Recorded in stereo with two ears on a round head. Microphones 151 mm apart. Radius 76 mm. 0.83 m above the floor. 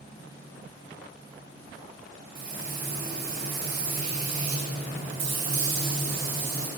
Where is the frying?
60° right (ahead or behind), 2.5 m.